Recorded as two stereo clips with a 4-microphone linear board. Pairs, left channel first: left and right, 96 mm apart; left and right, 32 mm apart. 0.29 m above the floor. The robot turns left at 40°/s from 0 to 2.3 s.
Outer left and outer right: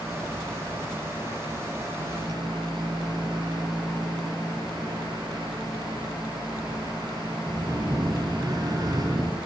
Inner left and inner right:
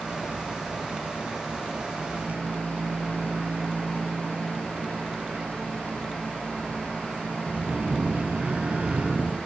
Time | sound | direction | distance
2.0 | a microwave | 55° right (ahead or behind) | 6.5 m